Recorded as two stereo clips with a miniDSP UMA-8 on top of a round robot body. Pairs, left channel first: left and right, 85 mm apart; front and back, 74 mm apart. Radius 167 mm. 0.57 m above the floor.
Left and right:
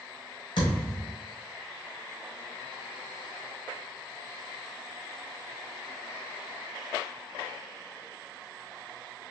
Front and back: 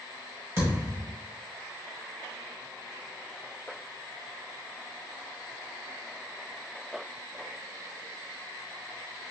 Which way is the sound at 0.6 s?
125° left.